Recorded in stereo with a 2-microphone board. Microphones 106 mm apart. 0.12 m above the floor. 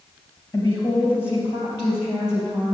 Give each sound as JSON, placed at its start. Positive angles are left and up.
{"t": 0.5, "sound": "a woman speaking", "side_deg": 25, "distance_m": 2.5}